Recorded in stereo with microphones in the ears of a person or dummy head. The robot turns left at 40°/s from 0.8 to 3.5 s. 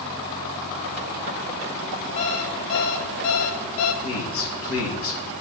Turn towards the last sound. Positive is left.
turn(degrees=70)  # may be behind; listen again after turning